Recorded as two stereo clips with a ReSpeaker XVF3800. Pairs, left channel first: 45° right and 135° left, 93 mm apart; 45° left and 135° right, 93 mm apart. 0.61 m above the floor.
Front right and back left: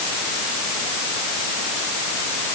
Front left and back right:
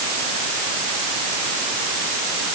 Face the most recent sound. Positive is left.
No sound to turn to.